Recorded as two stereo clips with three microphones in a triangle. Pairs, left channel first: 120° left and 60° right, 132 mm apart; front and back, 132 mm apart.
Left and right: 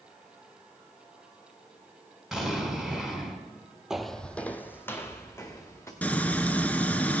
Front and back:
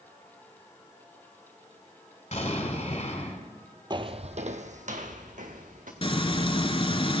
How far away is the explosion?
About 3 m.